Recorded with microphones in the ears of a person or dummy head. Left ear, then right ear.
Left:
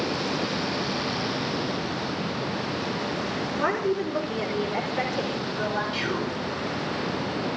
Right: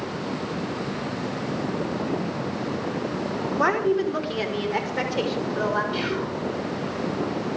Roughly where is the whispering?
Centre.